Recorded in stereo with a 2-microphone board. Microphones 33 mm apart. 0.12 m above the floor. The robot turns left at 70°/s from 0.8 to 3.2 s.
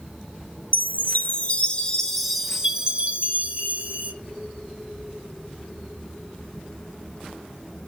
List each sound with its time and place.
0.7 s a chime: 105° left, 1.8 m; by 4.1 s 65° right, 1.8 m